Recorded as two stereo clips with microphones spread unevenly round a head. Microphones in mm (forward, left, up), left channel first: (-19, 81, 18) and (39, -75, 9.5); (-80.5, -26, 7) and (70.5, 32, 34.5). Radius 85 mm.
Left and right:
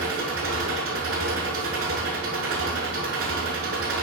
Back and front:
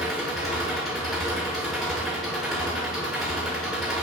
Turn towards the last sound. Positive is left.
turn(degrees=-70)